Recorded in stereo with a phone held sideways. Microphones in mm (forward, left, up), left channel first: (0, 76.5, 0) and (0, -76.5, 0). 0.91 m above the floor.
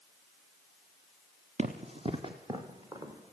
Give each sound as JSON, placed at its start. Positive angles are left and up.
{"t": 1.6, "sound": "running footsteps", "side_deg": -45, "distance_m": 2.5}